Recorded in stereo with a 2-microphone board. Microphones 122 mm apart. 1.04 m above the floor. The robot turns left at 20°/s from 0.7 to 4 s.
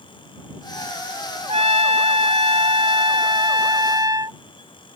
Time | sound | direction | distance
1.5 | a trumpet | 95° right | ?